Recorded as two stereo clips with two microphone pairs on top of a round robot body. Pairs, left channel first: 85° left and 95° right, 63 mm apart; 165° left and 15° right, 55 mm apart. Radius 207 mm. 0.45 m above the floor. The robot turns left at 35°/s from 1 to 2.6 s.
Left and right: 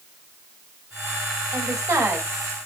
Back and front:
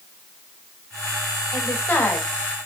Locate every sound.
1.5 s a woman speaking: 125° right, 4 m; by 2.3 s 150° right, 4 m